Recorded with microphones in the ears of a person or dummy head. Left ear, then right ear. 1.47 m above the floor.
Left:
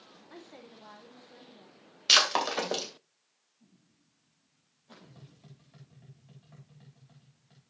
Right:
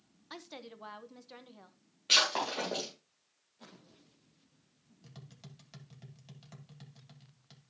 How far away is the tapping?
About 1.6 m.